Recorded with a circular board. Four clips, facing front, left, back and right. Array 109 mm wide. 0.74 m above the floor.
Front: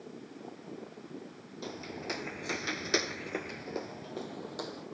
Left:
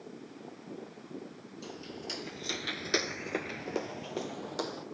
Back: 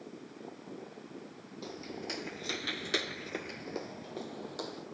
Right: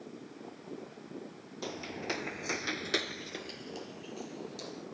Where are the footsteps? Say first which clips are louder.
Right 5 dB, front 2 dB; 75° right, 1.2 m; by 4.8 s 90° left, 1.7 m.